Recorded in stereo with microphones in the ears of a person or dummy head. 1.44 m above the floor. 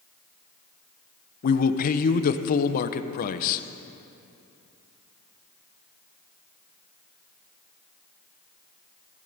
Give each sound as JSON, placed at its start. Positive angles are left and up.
{"t": 1.4, "sound": "a man speaking", "side_deg": 45, "distance_m": 0.6}